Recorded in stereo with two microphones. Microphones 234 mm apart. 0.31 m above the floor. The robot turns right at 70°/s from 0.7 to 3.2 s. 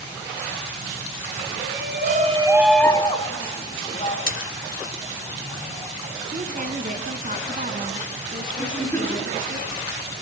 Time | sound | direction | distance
1.6 | a shout | 80° right | 3 m
4.3 | a splash | 65° left (ahead or behind) | 1.4 m
6.3 | a woman speaking | 35° right (ahead or behind) | 3 m
8.6 | a giggle | 10° left (ahead or behind) | 6 m